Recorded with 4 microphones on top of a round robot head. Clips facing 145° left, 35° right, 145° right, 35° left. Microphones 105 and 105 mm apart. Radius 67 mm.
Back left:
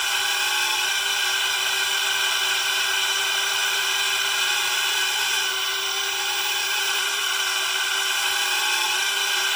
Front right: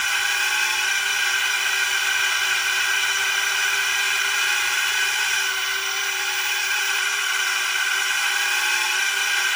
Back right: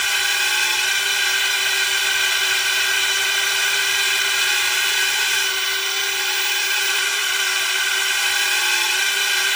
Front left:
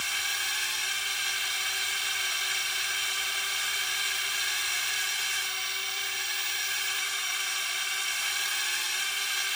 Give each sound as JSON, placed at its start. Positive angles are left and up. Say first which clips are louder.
{"t": 0.0, "sound": "a drone", "louder": "front right 2 dB, back right 12 dB", "azimuth_deg": -145}